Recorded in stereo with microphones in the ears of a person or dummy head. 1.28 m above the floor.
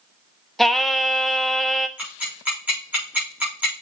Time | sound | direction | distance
0.6 | singing | 5° left (ahead or behind) | 0.6 m
2.0 | ticking | 10° right (ahead or behind) | 4 m